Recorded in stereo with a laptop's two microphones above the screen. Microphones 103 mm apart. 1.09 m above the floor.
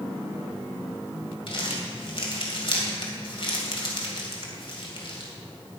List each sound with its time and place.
1.5 s crumpling: 55° left (ahead or behind), 2 m